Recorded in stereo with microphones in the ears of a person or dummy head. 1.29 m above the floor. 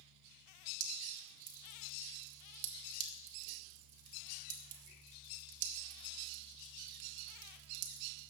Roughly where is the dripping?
Right.